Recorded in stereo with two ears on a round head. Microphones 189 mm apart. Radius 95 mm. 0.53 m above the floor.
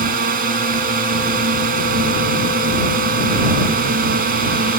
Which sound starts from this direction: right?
A drone, at 0.0 s.